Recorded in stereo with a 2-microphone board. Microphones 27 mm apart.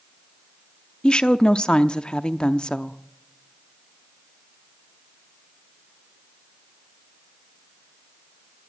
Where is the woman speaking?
35° left (ahead or behind), 0.7 m.